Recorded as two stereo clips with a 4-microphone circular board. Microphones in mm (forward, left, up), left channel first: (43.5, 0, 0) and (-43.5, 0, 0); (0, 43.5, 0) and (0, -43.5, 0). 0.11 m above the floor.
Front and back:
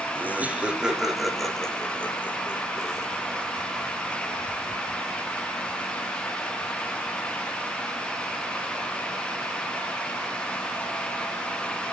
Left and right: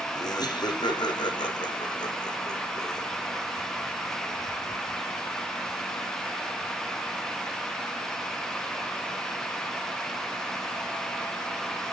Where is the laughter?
115° left, 3.5 m; by 3.1 s 55° left, 4 m.